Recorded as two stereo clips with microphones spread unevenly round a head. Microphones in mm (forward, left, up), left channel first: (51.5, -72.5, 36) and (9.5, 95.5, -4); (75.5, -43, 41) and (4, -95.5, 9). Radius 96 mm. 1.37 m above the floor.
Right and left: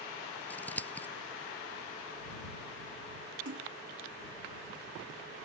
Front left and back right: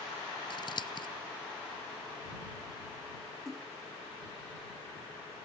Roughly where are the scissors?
Ahead.